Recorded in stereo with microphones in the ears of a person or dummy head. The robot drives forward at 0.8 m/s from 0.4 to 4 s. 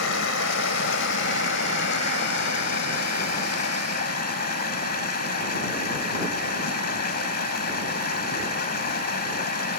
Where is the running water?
60° left (ahead or behind); by 9.8 s 40° left (ahead or behind).